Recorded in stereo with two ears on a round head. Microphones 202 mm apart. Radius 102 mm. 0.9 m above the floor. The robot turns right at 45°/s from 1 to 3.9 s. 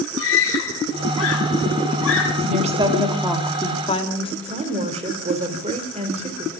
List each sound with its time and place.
0.2 s a scream: 60° left (ahead or behind), 5.5 m
2.5 s a woman speaking: 40° right, 2.5 m; by 4.3 s 25° left, 2.5 m
4.4 s a woman speaking: 25° right (ahead or behind), 2.5 m